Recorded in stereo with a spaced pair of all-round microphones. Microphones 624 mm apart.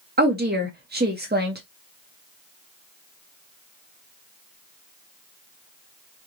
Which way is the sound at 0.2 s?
15° right (ahead or behind).